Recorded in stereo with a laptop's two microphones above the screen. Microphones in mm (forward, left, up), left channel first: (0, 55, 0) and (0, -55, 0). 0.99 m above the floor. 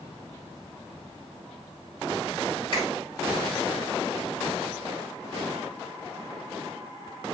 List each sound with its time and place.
2.7 s a finger snap: 50° left (ahead or behind), 2.0 m